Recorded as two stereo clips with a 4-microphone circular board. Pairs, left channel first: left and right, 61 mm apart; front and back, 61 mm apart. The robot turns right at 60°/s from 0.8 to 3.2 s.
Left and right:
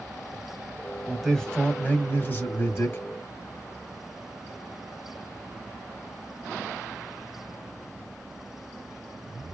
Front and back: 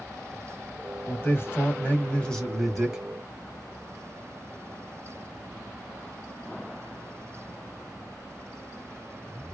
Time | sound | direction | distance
1.1 | a man speaking | 10° right | 1.2 m